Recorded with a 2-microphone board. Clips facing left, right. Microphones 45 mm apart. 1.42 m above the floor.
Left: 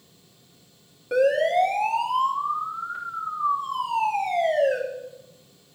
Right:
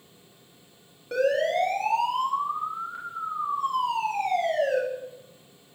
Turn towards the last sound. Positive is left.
turn(degrees=15)  # may be behind; listen again after turning